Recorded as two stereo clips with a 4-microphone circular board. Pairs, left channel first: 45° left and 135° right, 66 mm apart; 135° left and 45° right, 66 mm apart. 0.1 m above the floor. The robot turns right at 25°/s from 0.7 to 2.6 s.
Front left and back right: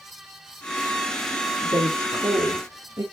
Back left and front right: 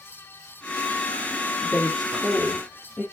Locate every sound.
1.6 s a woman speaking: 145° right, 4.5 m; by 3.0 s 120° right, 4.5 m